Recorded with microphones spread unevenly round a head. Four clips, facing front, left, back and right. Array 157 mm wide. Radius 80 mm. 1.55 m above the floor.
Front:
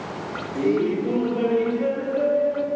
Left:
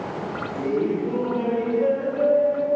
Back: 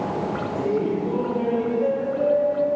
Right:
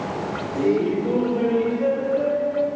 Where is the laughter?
30° right, 4 m; by 2.7 s straight ahead, 4 m.